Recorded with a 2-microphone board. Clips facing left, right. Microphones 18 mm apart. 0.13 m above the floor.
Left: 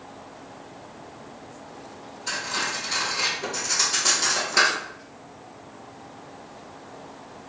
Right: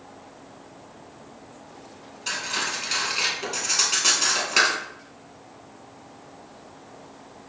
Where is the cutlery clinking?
65° right (ahead or behind), 2 m.